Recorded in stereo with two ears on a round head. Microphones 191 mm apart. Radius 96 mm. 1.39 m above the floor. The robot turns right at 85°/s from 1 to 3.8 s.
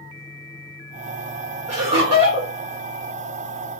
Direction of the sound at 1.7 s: 110° right.